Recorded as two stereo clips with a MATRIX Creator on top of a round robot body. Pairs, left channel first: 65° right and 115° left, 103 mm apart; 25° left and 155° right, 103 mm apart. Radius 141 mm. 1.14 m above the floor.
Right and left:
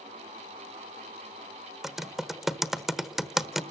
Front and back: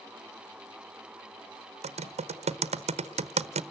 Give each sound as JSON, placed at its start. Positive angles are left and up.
{"t": 1.8, "sound": "typing on a keyboard", "azimuth_deg": -160, "distance_m": 1.1}